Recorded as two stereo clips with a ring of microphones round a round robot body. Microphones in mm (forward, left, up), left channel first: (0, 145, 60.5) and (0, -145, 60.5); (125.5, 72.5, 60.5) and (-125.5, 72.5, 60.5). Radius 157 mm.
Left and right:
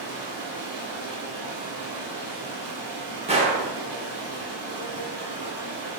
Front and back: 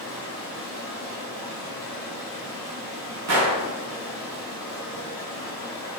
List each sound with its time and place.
0.0 s running water: 120° right, 1.6 m
3.3 s a gunshot: 160° right, 0.6 m